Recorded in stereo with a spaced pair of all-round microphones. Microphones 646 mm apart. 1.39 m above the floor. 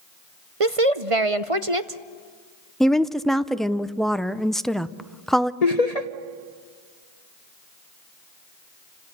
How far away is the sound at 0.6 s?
About 0.9 m.